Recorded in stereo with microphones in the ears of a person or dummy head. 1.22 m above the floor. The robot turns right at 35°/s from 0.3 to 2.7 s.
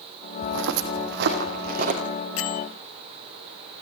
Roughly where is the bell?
Left.